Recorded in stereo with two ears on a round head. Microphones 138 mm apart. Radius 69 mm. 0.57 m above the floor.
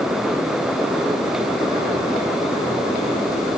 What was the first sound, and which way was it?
Only background noise.